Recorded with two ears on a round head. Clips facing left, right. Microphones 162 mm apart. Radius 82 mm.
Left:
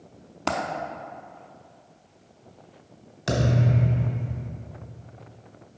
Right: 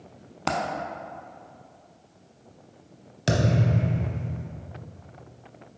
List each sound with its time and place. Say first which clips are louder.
0.5 s a dropped coin: even; centre (ahead or behind), 0.5 m
3.3 s a thud: even; 35° right (ahead or behind), 1.1 m